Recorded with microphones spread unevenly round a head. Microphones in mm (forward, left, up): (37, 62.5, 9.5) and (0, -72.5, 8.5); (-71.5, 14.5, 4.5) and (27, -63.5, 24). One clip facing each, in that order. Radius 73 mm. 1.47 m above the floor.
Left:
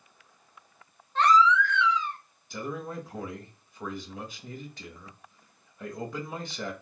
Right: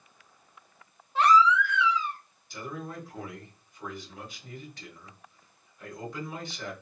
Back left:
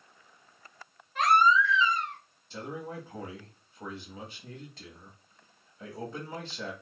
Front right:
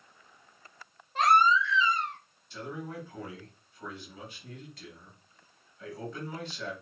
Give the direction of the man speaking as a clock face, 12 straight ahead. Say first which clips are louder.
Left 3 dB, back left 1 dB; 9 o'clock.